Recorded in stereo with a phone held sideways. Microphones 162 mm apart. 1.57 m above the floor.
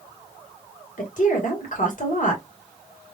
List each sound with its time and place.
1.0 s a woman speaking: 60° left (ahead or behind), 1.9 m